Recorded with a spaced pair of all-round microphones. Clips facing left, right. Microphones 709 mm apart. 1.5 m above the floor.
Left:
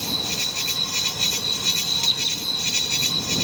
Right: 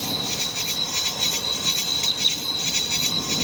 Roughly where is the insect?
Left.